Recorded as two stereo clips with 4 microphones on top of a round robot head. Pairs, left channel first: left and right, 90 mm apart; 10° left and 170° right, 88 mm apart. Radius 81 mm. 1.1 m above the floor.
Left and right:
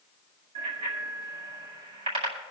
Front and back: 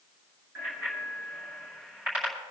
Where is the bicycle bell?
95° right, 5.5 m.